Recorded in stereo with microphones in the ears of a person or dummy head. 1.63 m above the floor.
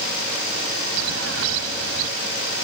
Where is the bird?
85° right.